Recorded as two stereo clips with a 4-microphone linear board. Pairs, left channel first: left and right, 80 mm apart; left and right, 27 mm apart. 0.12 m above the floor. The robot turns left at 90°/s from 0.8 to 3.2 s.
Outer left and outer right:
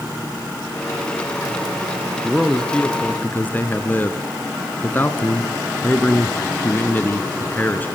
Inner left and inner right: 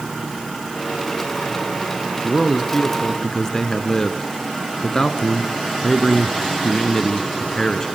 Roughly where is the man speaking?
Centre.